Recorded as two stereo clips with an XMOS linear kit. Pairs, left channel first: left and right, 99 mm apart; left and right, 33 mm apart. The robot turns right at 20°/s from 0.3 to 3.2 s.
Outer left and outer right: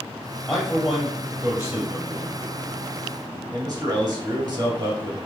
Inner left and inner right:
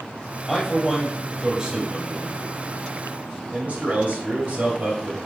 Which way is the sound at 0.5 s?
10° left (ahead or behind).